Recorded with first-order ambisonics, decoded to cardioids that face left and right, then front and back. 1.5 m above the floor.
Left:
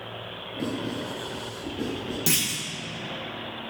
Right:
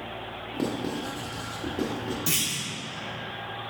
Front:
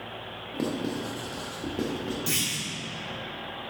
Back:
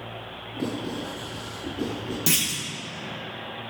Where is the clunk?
145° left, 0.8 m.